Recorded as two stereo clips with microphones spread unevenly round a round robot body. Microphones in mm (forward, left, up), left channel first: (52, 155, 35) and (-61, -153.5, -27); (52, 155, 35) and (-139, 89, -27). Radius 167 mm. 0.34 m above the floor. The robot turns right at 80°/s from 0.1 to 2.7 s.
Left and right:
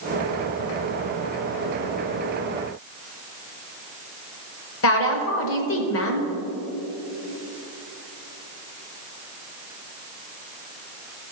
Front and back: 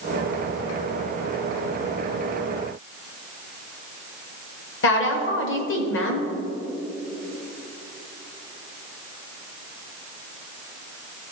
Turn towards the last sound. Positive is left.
turn(degrees=25)